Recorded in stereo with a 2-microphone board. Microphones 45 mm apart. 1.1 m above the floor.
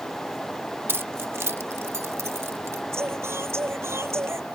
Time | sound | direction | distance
0.9 | keys jangling | 55° right (ahead or behind) | ?
2.9 | singing | 70° right (ahead or behind) | ?